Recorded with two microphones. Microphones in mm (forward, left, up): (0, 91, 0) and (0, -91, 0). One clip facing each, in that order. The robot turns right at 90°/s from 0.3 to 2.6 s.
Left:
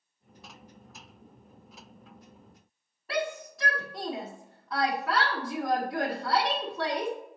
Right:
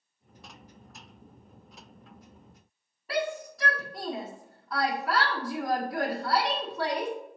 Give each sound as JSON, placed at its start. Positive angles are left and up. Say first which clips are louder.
{"t": 3.1, "sound": "a shout", "louder": "right 1 dB", "side_deg": 0, "distance_m": 1.2}